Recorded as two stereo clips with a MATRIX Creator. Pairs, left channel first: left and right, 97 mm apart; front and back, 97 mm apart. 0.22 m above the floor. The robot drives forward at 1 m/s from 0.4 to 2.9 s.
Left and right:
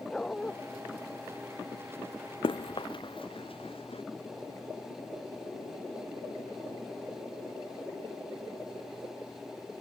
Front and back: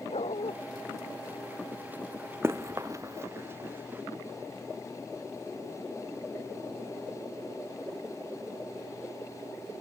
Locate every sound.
0.1 s a dog barking: 10° left
2.4 s running footsteps: 115° left; by 4.0 s 110° left